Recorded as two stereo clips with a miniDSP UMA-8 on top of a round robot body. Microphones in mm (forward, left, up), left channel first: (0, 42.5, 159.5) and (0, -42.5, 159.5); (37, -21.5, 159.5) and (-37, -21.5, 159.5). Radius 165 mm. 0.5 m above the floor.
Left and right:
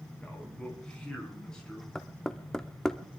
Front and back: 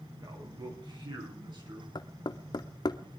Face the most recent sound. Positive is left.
turn(degrees=5)